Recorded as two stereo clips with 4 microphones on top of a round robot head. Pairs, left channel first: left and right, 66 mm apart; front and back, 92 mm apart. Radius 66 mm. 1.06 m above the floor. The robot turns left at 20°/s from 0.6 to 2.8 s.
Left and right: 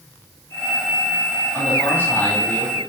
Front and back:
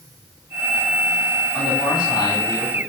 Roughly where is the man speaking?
Ahead left.